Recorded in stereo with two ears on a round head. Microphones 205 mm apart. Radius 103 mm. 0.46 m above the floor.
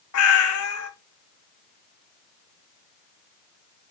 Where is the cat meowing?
65° left (ahead or behind), 0.6 m.